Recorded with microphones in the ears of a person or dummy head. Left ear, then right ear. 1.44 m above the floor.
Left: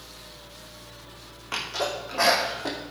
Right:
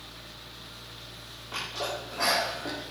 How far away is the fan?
About 0.8 m.